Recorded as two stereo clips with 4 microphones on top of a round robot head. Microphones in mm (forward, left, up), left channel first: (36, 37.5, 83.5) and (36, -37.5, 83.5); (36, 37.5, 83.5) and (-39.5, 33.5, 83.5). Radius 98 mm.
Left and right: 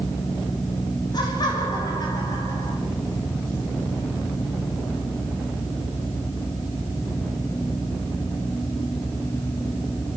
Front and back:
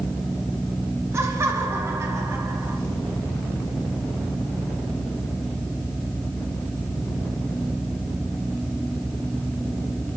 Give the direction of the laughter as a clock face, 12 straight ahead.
8 o'clock.